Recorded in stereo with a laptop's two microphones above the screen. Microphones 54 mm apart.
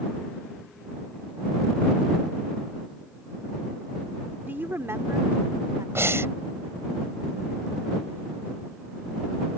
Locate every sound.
4.5 s a woman speaking: 40° right (ahead or behind); by 5.8 s 80° right
6.0 s breathing: 50° right (ahead or behind)